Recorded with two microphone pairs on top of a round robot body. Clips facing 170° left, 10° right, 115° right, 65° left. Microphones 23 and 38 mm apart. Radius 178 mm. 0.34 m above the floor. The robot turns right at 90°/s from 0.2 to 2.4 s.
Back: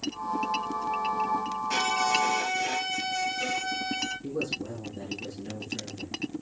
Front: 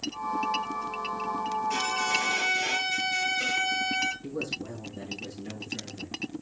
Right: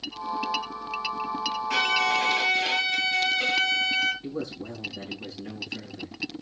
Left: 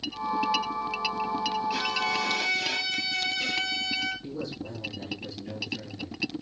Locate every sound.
1.7 s a violin: 130° right, 5 m; by 4.1 s 65° right, 5 m
4.2 s a man speaking: 95° right, 6 m